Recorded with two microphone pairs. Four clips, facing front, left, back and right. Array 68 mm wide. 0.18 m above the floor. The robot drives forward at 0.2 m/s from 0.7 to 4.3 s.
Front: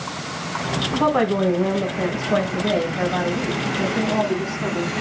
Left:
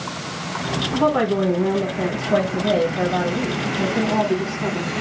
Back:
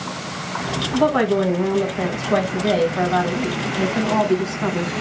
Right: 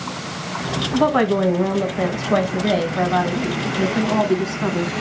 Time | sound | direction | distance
0.9 | a woman speaking | 80° right | 1.1 m